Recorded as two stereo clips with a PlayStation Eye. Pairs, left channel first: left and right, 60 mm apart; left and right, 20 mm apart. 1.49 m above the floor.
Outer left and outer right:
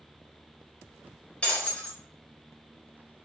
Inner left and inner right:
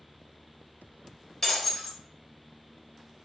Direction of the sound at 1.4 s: 15° left (ahead or behind).